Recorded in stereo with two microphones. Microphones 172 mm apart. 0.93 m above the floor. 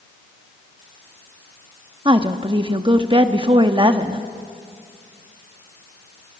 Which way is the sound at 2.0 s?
30° right (ahead or behind).